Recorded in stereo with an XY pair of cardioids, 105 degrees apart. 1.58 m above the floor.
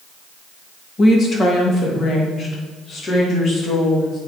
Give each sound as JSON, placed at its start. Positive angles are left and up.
{"t": 1.0, "sound": "a woman speaking", "azimuth_deg": 45, "distance_m": 2.0}